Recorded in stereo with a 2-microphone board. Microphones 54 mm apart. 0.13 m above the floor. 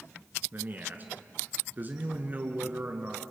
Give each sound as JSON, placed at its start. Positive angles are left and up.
{"t": 0.5, "sound": "a man speaking", "side_deg": -35, "distance_m": 2.0}